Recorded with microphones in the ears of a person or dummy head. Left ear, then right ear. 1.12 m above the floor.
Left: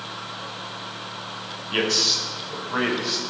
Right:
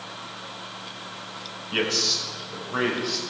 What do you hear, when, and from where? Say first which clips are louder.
1.7 s a man speaking: left 3 dB; 15° left (ahead or behind), 5.5 m; by 3.2 s 20° left (ahead or behind), 7 m